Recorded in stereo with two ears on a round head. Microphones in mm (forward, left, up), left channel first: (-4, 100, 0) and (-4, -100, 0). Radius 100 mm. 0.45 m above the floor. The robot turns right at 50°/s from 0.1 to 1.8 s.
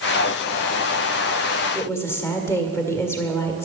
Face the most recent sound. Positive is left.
turn(degrees=10)  # may be behind; listen again after turning